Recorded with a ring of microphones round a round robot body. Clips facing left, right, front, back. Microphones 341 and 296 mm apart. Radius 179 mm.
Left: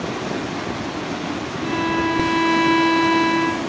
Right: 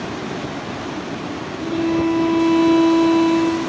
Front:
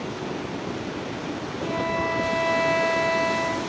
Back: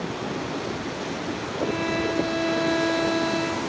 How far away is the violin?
About 5 m.